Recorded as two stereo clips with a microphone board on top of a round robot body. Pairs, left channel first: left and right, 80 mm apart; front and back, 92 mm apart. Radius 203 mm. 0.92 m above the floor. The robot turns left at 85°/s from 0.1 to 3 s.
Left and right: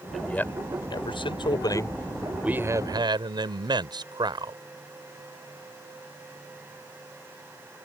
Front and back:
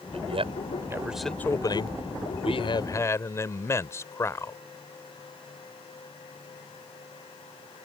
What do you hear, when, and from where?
0.1 s a man speaking: 175° right; by 4.6 s 60° right